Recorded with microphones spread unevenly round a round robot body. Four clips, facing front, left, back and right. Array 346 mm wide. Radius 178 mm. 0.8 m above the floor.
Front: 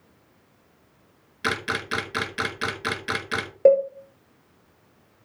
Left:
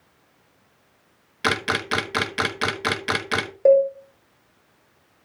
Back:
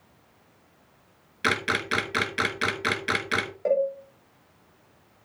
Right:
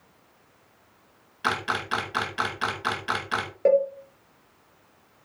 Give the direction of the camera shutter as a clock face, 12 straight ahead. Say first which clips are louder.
Left 3 dB, back 1 dB; 9 o'clock.